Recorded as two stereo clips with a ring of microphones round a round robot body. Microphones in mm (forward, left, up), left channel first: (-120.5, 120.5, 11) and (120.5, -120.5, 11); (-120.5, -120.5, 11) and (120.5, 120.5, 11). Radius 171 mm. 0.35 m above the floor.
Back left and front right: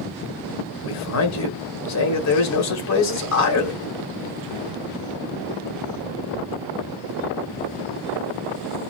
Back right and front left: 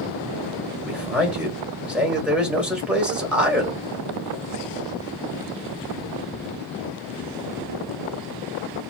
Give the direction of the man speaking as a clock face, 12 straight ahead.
8 o'clock.